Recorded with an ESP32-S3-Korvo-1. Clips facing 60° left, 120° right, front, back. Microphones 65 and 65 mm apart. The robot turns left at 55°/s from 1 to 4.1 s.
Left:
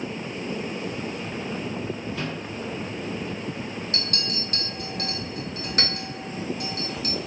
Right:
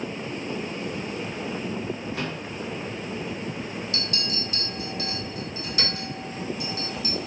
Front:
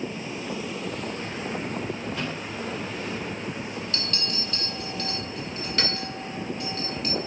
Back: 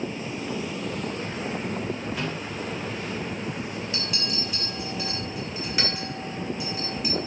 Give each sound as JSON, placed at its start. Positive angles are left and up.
{"t": 2.1, "sound": "a microwave", "azimuth_deg": -95, "distance_m": 1.1}
{"t": 3.9, "sound": "a clink", "azimuth_deg": 110, "distance_m": 0.7}